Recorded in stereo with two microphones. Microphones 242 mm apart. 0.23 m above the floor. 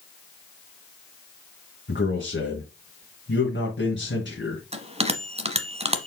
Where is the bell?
25° right (ahead or behind), 0.9 m.